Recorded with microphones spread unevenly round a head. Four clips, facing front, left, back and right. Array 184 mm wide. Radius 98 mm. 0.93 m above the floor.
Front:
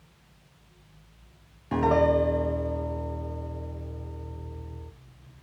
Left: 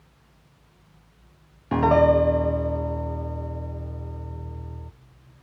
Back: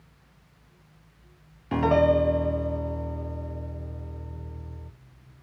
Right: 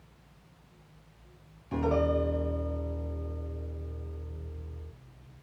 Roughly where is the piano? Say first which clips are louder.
Left 10 dB, back 1 dB; left.